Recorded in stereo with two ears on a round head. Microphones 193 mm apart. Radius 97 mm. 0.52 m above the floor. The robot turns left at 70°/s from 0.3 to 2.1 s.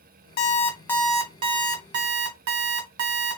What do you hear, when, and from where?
0.4 s an alarm clock: 45° left, 1.1 m; by 3.4 s 75° right, 1.1 m